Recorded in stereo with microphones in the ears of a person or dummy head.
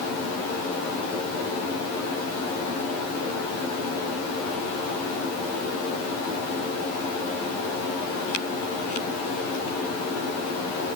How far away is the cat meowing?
No cat meowing in this recording.